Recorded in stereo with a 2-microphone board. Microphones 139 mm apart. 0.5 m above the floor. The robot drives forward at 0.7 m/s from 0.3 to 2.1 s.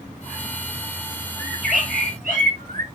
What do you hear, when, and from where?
1.4 s a bird: 85° right, 5.5 m; by 2.9 s 80° right, 5.5 m